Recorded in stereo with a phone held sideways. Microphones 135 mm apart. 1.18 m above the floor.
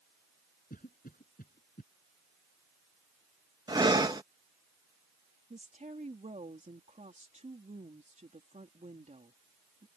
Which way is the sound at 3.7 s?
30° right (ahead or behind).